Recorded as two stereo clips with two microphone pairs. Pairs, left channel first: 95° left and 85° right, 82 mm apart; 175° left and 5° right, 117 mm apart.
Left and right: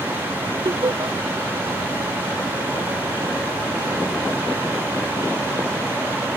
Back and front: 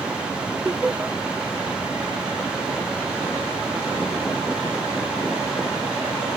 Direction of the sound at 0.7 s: 85° right.